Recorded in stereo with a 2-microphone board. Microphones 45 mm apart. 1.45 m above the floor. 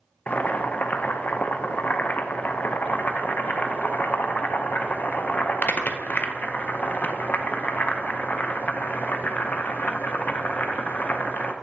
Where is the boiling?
40° left (ahead or behind), 0.6 m.